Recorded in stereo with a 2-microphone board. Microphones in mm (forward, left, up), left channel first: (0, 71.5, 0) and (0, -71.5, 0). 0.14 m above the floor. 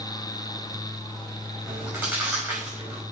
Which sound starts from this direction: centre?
Chewing, at 1.6 s.